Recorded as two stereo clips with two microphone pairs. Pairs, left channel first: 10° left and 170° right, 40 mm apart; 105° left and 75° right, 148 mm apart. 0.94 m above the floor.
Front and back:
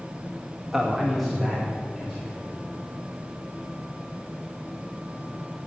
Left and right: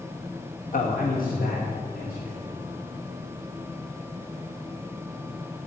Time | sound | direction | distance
0.7 | a man speaking | 110° left | 1.2 m